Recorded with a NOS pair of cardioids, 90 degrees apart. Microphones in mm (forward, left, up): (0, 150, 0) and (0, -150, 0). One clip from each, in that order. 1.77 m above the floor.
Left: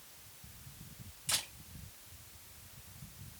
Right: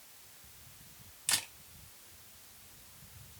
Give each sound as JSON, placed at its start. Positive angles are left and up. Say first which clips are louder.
{"t": 1.3, "sound": "a camera shutter", "louder": "right 2 dB", "azimuth_deg": -55, "distance_m": 1.8}